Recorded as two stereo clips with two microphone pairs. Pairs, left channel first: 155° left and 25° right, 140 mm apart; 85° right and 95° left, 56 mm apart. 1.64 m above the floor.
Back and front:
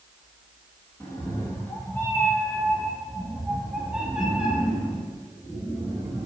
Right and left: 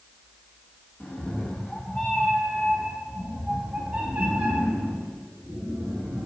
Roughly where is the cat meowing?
Behind right.